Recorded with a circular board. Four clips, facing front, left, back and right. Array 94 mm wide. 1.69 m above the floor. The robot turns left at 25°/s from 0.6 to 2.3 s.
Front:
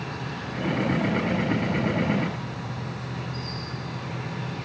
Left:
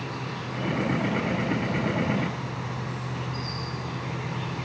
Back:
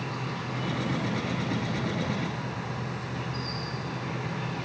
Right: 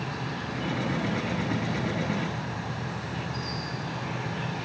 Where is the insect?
45° right, 9.5 m; by 4.7 s 90° right, 9.5 m.